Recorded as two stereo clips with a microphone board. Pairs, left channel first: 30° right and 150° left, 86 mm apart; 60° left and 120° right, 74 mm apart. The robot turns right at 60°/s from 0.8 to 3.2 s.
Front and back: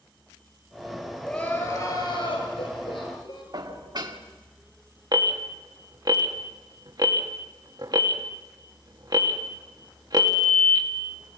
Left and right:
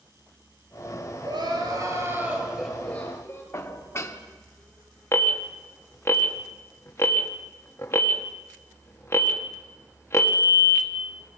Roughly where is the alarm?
Behind left.